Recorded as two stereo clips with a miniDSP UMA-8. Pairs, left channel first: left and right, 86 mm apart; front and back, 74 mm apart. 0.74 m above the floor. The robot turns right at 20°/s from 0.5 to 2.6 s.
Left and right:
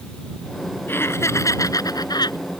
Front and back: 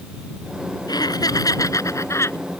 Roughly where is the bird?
No bird in this recording.